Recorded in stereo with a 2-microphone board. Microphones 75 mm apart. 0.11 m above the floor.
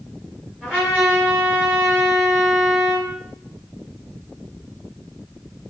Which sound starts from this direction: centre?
A trumpet, at 0.6 s.